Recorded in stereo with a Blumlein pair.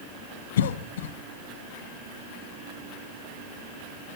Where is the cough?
60° left, 0.7 m.